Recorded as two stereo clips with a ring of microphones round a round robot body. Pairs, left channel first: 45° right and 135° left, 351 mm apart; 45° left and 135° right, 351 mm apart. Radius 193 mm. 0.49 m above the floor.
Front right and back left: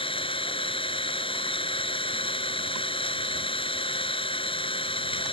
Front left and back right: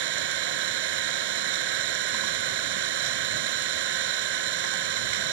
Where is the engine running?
120° right.